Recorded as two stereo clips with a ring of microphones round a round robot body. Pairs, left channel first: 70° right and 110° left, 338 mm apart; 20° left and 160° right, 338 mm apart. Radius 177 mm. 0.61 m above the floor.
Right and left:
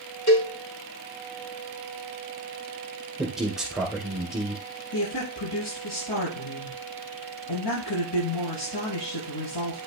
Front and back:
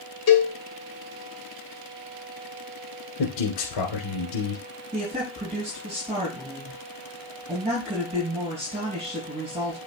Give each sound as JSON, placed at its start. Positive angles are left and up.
{"t": 0.3, "sound": "a cowbell", "azimuth_deg": -25, "distance_m": 3.5}
{"t": 3.2, "sound": "a man speaking", "azimuth_deg": 25, "distance_m": 2.0}
{"t": 4.9, "sound": "a woman speaking", "azimuth_deg": -85, "distance_m": 5.5}